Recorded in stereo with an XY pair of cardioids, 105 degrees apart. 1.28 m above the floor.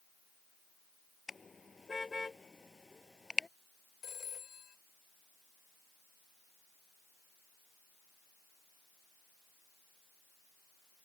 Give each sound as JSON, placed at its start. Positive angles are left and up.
{"t": 1.3, "sound": "a car horn", "azimuth_deg": 25}
{"t": 4.0, "sound": "a phone ringing", "azimuth_deg": 45}